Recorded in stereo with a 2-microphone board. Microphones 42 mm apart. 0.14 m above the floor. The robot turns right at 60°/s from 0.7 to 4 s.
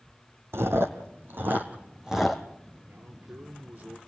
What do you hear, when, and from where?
0.5 s chewing: 80° right, 1.9 m; by 2.4 s 5° left (ahead or behind), 1.9 m
2.9 s a man speaking: 95° right, 3 m; by 4.0 s 25° right, 3 m